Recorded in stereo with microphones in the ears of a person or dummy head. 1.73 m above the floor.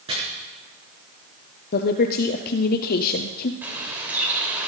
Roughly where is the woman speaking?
Left.